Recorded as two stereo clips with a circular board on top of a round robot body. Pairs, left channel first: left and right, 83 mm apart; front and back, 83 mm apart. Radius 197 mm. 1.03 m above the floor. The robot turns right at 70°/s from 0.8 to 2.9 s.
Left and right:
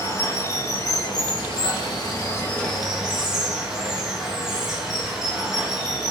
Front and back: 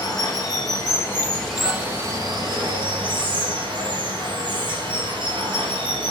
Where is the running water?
40° left, 2.5 m; by 6.1 s 170° right, 2.5 m.